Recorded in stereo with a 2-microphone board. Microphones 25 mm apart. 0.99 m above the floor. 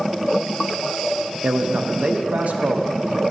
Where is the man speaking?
65° right (ahead or behind), 0.8 m.